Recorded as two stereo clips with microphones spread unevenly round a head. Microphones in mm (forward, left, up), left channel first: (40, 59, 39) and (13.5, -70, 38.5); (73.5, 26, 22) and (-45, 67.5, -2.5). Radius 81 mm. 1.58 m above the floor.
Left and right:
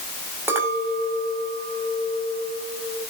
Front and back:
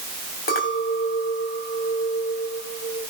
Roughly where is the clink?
Ahead right.